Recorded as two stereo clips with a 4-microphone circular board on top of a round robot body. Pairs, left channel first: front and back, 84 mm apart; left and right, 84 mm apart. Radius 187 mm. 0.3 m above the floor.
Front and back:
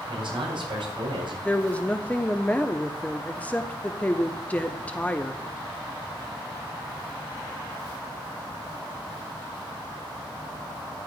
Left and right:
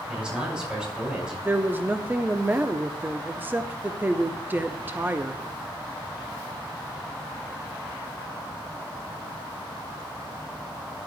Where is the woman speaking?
55° right, 1.1 m.